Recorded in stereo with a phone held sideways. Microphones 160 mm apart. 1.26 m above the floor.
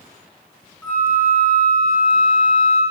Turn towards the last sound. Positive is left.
turn(degrees=10)  # may be behind; listen again after turning